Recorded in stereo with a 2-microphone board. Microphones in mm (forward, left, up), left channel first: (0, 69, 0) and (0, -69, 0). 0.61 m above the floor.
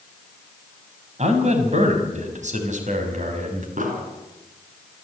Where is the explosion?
70° right (ahead or behind), 4.5 m.